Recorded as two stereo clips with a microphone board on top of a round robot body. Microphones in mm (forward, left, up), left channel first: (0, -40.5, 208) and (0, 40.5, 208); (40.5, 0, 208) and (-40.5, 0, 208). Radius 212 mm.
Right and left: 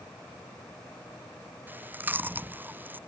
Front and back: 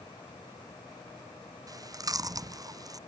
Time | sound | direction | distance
1.7 | chewing | 150° left | ?